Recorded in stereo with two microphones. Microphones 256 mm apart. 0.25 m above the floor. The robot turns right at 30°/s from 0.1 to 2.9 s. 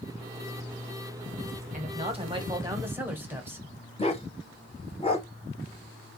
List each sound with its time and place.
1.7 s a man speaking: 45° right, 1.1 m; by 3.7 s 10° right, 1.1 m
4.0 s a dog barking: 25° left (ahead or behind), 0.9 m